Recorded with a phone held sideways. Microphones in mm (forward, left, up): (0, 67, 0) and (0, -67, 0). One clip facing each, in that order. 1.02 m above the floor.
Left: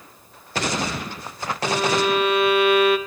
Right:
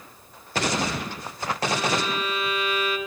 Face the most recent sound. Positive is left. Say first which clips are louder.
# left 6 dB
turn(degrees=70)  # may be behind; listen again after turning